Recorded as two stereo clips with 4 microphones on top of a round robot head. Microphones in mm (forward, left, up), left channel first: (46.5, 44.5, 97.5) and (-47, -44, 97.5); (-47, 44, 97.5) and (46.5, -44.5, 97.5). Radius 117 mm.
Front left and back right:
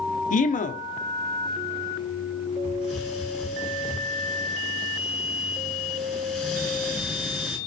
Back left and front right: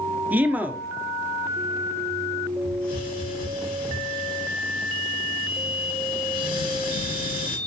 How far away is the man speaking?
About 1.3 m.